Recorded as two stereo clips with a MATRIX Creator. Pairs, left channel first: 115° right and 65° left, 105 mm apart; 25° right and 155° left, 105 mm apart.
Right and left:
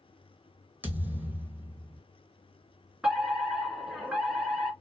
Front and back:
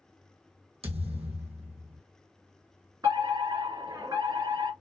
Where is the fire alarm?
150° left, 2.5 m.